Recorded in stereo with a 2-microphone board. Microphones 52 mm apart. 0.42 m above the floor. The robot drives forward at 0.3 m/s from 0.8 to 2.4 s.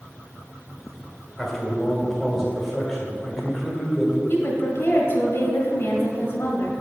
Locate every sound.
1.4 s a man speaking: centre (ahead or behind), 1.8 m
4.3 s a woman speaking: 50° left (ahead or behind), 1.6 m